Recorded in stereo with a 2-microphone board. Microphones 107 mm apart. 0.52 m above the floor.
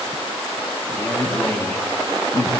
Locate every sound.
1.0 s a man speaking: 20° left (ahead or behind), 5 m